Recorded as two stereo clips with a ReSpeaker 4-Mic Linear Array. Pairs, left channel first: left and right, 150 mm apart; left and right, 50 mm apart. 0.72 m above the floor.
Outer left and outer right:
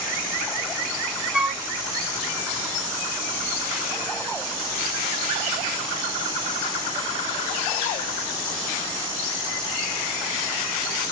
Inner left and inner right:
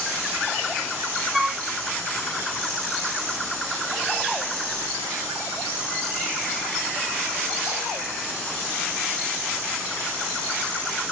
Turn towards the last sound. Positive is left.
turn(degrees=-5)  # may be behind; listen again after turning